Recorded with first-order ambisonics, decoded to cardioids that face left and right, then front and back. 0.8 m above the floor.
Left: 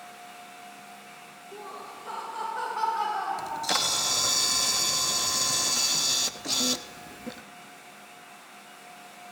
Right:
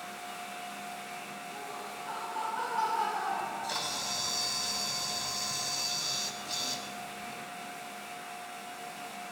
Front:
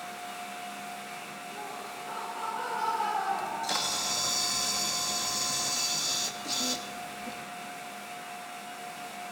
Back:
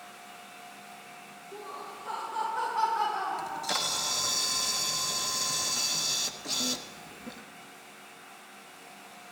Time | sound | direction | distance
1.5 | laughter | 125° left | 4.5 m
3.4 | a camera shutter | 95° left | 0.8 m